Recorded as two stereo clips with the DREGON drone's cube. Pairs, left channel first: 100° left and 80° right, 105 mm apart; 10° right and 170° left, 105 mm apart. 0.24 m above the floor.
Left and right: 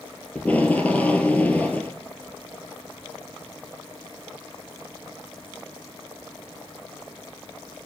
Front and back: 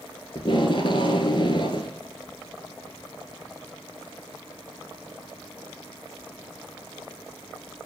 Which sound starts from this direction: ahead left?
Tape being pulled, at 0.3 s.